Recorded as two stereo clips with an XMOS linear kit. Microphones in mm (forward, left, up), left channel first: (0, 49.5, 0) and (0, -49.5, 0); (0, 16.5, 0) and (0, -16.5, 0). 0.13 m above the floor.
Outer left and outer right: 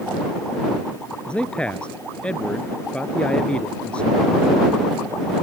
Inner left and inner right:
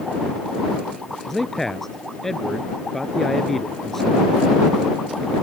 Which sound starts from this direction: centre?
A man speaking, at 1.3 s.